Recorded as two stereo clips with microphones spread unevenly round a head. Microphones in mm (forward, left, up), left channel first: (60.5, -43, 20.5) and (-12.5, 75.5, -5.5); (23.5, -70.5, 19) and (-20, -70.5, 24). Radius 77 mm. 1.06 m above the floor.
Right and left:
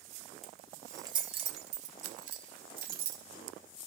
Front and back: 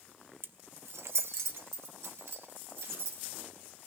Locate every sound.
0.4 s keys jangling: 145° right, 0.8 m; by 3.2 s 155° left, 2 m